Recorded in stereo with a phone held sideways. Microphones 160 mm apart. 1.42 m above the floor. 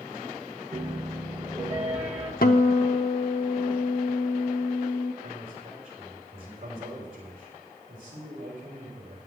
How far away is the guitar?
About 0.8 m.